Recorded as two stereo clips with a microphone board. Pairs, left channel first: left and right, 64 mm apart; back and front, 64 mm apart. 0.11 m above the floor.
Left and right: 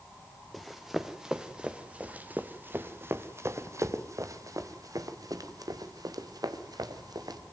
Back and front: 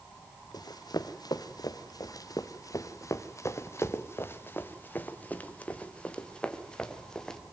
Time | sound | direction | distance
0.5 | running footsteps | straight behind | 2 m